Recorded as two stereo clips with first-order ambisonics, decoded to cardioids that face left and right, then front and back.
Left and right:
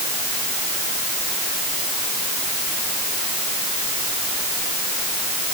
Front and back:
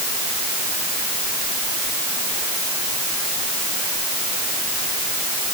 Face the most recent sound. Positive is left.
No sound to turn to.